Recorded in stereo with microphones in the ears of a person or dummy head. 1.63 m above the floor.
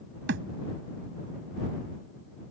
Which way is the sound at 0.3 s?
70° right (ahead or behind).